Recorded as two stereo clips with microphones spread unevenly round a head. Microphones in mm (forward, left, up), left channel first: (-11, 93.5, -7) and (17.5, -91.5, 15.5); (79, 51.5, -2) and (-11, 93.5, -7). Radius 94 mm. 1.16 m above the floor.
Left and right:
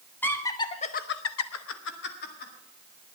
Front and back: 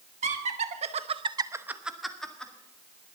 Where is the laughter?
Straight behind, 1.7 m; by 2.5 s 55° left, 2 m.